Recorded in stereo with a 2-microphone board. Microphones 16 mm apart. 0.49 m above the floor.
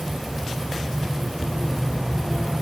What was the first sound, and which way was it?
Only background noise.